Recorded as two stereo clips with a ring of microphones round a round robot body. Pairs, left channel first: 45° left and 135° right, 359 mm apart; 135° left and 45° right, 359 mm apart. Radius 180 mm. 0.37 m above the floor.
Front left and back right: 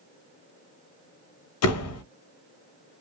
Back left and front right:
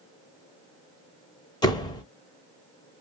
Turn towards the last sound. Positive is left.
turn(degrees=60)